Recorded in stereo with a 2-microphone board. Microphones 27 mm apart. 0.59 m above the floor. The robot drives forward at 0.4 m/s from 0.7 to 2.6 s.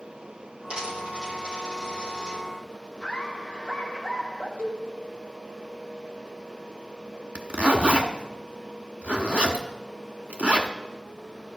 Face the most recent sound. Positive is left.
turn(degrees=-70)  # may be behind; listen again after turning